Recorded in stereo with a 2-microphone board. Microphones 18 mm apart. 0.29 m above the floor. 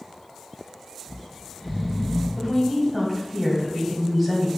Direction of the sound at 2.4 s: 5° left (ahead or behind).